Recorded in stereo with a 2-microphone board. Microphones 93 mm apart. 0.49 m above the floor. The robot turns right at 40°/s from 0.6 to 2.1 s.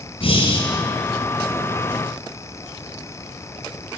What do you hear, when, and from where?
0.2 s breathing: 75° left (ahead or behind), 5.5 m